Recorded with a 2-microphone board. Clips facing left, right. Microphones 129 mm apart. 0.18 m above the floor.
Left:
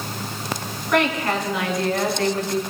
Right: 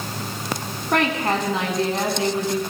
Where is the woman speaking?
40° right (ahead or behind), 2 m; by 2.6 s 10° right (ahead or behind), 1.8 m.